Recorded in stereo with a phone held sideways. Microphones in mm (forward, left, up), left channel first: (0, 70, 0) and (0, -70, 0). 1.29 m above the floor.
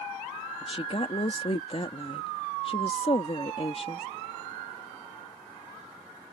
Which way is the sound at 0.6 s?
45° left (ahead or behind).